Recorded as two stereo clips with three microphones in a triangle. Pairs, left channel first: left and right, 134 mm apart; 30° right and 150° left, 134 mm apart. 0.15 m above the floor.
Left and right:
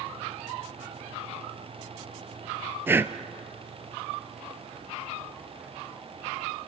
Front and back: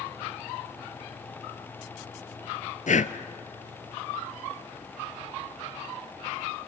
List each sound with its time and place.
2.9 s breathing: 15° right, 1.0 m